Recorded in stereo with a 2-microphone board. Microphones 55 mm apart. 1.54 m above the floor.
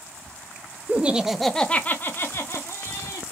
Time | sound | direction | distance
0.9 | laughter | 30° right (ahead or behind) | 0.5 m